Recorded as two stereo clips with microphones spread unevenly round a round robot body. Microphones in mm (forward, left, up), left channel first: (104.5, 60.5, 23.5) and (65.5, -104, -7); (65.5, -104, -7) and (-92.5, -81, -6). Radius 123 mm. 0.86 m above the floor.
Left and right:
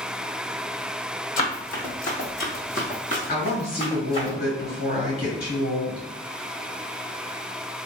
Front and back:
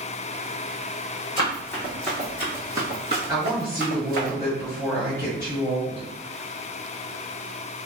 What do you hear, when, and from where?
1.4 s running footsteps: 60° left, 1.7 m; by 4.3 s 140° left, 1.8 m
3.3 s a woman speaking: 45° left, 2 m